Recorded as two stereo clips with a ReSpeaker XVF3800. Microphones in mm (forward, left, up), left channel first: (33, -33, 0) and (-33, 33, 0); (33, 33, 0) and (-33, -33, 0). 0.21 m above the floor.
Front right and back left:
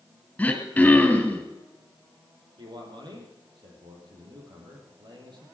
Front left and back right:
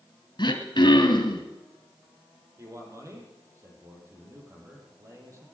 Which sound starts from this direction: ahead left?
Throat clearing, at 0.4 s.